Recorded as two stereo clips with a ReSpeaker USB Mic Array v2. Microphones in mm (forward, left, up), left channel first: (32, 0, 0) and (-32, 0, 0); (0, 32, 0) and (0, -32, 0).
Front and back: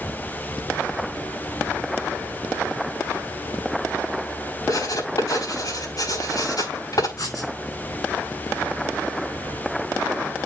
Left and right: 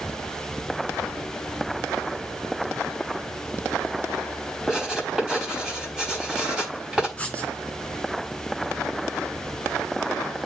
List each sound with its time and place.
4.7 s writing: 10° right, 6 m
7.2 s writing: 20° left, 4 m